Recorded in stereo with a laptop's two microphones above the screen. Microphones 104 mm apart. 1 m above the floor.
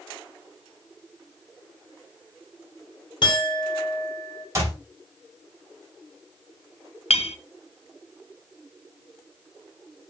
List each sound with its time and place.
3.2 s a clink: 50° left (ahead or behind), 1.7 m
4.5 s a clap: 30° right (ahead or behind), 3.5 m
7.1 s a clink: 80° left, 0.6 m